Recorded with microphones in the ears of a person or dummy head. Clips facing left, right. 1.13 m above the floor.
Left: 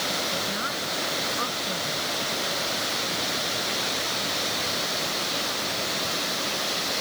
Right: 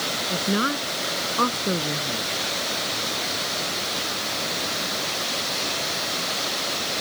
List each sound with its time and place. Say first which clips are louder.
0.3 s a woman speaking: right 7 dB; 60° right (ahead or behind)